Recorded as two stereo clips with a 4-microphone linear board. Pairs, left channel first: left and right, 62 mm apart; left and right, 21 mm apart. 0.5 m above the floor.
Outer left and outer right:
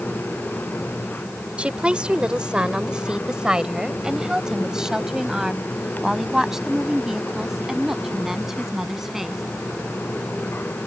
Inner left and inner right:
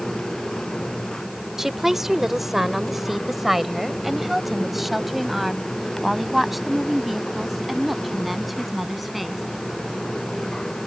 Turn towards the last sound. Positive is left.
turn(degrees=-5)  # may be behind; listen again after turning